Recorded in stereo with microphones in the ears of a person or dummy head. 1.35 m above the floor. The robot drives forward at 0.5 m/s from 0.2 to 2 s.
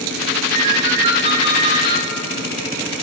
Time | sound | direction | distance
0.5 | a ringtone | 45° right (ahead or behind) | 1.1 m